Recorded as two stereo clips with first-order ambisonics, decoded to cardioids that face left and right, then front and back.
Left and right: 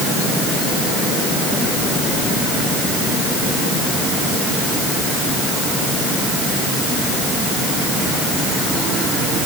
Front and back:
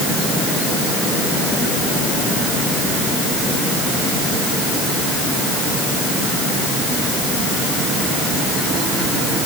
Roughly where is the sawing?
No sawing in this recording.